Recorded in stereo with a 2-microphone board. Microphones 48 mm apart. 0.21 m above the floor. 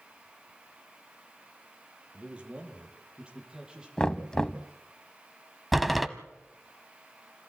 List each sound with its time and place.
2.1 s a man speaking: 25° right (ahead or behind), 6 m; by 3.9 s 15° right (ahead or behind), 7.5 m
4.0 s knocking: 15° left (ahead or behind), 0.9 m
5.7 s a door slam: centre (ahead or behind), 1.0 m